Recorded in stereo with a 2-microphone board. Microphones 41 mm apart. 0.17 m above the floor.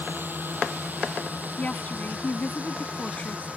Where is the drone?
50° right (ahead or behind); by 3.6 s 30° right (ahead or behind).